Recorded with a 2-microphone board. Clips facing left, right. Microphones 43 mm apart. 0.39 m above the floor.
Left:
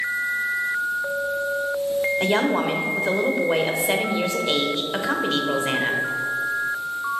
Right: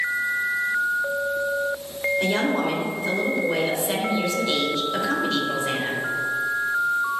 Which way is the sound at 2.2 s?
35° left (ahead or behind).